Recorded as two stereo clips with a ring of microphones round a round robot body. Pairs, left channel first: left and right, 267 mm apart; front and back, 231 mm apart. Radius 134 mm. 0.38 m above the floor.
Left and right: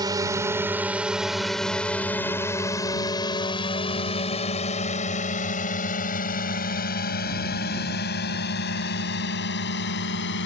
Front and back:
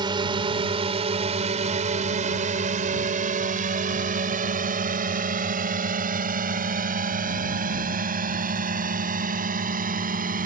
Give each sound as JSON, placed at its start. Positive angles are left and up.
{"t": 0.0, "sound": "a drone", "azimuth_deg": -140}